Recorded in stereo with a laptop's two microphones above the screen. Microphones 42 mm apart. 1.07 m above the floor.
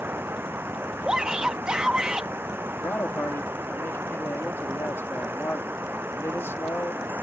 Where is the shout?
20° right (ahead or behind).